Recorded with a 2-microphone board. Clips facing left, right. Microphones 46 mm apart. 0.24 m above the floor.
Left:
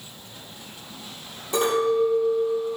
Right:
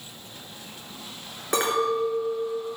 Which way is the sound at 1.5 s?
70° right (ahead or behind).